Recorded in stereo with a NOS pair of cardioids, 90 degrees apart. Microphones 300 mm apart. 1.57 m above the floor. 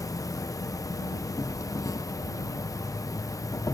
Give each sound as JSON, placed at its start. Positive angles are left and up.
{"t": 0.0, "sound": "an insect", "azimuth_deg": 10}